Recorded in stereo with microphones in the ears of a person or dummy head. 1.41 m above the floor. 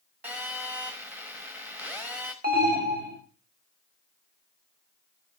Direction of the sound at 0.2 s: 5° right (ahead or behind).